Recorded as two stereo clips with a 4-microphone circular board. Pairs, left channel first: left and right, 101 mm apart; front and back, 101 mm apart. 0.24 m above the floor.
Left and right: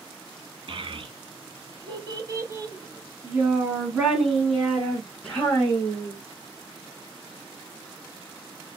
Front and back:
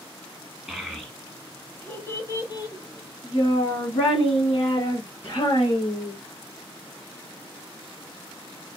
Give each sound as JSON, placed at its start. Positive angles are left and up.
{"t": 0.7, "sound": "a child speaking", "azimuth_deg": -90, "distance_m": 1.4}